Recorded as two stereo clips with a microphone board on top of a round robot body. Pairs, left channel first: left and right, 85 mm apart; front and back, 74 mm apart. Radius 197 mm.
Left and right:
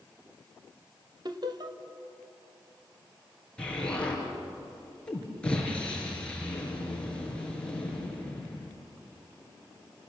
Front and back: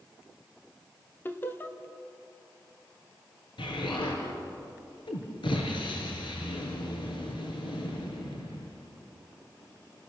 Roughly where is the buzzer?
No buzzer in this recording.